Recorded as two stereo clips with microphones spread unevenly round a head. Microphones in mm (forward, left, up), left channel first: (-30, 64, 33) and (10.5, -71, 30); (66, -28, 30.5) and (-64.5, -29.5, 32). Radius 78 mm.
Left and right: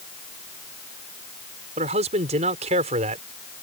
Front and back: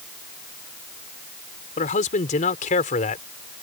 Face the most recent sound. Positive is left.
turn(degrees=-25)